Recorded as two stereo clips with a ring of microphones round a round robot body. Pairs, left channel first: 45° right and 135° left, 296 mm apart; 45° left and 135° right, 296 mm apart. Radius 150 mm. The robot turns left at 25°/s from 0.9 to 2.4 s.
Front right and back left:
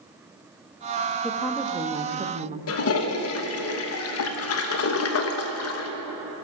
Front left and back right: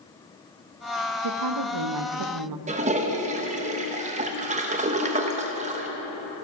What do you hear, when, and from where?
1.2 s a woman speaking: 130° right, 0.7 m; by 2.6 s 160° right, 0.7 m
2.7 s a toilet flushing: 75° right, 0.9 m